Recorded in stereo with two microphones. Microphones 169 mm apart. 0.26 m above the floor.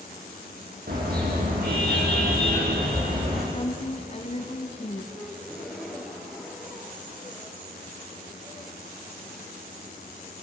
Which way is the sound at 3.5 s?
40° left (ahead or behind).